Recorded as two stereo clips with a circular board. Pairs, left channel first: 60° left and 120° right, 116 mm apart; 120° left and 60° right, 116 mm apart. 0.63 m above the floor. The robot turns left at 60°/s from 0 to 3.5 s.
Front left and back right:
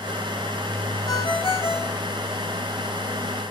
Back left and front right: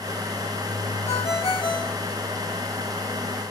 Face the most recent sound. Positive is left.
turn(degrees=-30)